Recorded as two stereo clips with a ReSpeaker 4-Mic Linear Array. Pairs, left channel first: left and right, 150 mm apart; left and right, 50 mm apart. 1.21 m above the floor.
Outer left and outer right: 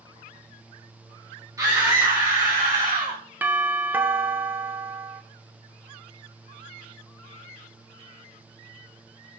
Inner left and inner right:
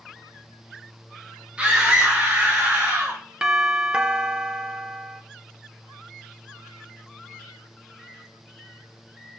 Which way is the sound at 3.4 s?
15° right (ahead or behind).